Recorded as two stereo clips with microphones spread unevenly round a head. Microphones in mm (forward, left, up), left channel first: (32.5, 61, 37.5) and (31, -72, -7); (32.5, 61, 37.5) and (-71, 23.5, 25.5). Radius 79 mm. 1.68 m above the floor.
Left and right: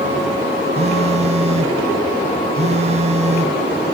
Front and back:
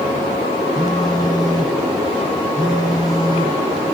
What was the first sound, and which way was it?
A phone buzzing, 45° right.